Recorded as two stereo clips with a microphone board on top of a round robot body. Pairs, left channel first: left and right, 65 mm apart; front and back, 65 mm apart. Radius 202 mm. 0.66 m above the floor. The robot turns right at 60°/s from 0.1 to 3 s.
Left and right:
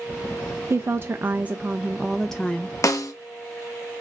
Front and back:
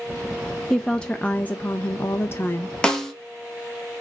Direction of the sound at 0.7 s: 85° right.